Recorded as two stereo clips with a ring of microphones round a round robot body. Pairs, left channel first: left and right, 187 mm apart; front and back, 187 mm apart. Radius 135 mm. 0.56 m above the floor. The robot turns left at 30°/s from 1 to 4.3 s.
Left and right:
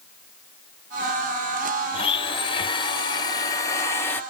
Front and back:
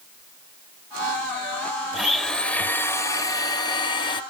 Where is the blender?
90° left, 0.7 m; by 4.2 s 20° left, 0.7 m.